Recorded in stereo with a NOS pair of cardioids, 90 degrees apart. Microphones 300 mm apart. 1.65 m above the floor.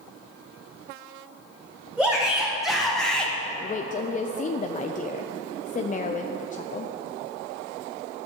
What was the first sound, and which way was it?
A shout, 5° right.